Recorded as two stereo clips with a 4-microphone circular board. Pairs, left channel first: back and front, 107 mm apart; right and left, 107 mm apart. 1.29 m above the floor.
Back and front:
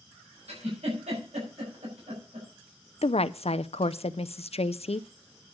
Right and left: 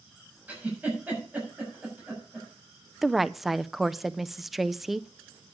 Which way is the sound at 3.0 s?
Straight behind.